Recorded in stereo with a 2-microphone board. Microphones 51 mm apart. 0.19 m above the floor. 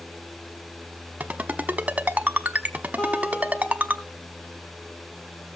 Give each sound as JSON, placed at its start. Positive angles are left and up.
{"t": 1.2, "sound": "a ringtone", "side_deg": -30, "distance_m": 1.0}
{"t": 3.0, "sound": "a guitar", "side_deg": 25, "distance_m": 3.5}